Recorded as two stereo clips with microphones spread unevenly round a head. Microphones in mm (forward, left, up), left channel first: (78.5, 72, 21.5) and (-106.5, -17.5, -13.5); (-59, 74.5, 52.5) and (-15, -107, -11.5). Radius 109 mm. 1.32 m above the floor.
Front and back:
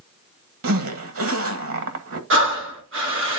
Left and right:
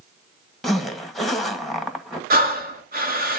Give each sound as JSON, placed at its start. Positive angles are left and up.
{"t": 0.6, "sound": "a zipper", "azimuth_deg": -165, "distance_m": 1.5}
{"t": 2.3, "sound": "breathing", "azimuth_deg": -115, "distance_m": 1.7}